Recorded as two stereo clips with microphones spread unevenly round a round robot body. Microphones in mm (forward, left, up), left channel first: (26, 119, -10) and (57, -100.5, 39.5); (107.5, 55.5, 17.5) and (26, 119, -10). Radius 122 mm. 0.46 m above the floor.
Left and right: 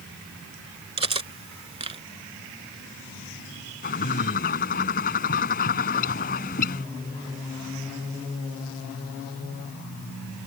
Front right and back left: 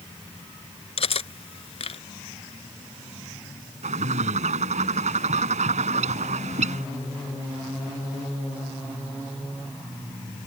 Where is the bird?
155° left.